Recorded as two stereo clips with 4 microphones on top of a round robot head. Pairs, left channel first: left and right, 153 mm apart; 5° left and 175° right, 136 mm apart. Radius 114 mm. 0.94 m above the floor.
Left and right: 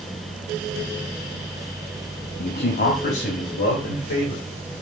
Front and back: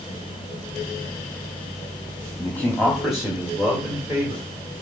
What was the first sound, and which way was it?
A man speaking, 75° left.